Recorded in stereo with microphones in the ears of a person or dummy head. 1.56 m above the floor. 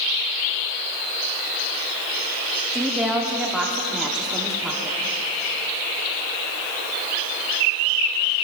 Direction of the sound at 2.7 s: 10° right (ahead or behind).